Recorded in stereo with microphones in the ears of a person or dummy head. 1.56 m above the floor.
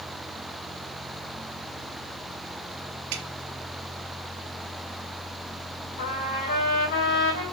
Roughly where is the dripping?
Right.